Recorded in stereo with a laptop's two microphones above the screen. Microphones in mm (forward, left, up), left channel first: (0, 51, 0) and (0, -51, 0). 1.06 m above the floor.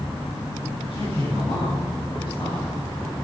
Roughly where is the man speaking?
Left.